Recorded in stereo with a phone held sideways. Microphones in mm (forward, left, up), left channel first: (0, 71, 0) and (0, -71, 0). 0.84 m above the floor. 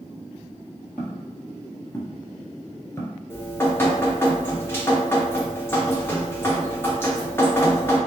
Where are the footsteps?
10° left (ahead or behind), 1.4 m; by 3.2 s 25° left (ahead or behind), 0.9 m.